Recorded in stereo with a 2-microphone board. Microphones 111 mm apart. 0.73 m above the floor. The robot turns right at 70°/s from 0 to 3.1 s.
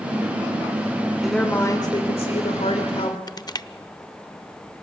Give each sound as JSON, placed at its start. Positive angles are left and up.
{"t": 1.2, "sound": "a woman speaking", "azimuth_deg": 0, "distance_m": 2.5}
{"t": 3.3, "sound": "crushing", "side_deg": 35, "distance_m": 0.5}